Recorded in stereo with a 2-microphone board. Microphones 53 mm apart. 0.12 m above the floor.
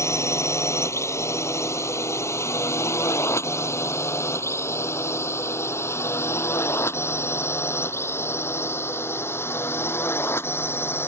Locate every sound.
0.0 s a drone: 60° left (ahead or behind); by 11.1 s 45° left (ahead or behind)